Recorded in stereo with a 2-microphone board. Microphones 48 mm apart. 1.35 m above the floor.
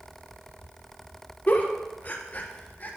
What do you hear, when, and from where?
1.5 s a giggle: 40° left (ahead or behind), 1.2 m